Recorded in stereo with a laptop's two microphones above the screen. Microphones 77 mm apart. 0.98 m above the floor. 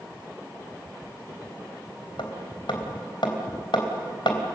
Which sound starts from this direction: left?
Hammering, at 2.2 s.